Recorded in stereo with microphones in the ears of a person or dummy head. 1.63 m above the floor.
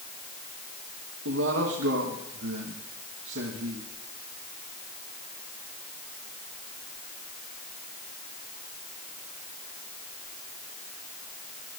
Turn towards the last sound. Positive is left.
turn(degrees=-80)